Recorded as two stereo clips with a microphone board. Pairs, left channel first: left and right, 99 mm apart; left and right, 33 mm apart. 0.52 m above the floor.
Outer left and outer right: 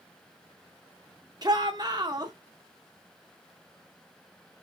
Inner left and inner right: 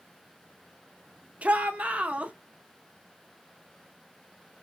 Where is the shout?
45° right (ahead or behind), 0.9 m.